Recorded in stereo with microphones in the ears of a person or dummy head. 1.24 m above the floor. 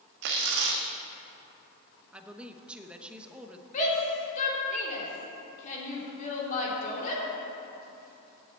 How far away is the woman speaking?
About 0.9 m.